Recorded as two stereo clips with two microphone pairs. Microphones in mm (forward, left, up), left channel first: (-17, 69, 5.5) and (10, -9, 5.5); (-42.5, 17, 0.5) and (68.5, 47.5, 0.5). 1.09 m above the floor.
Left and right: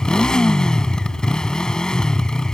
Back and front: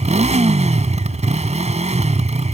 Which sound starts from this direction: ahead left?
A motorcycle, at 0.0 s.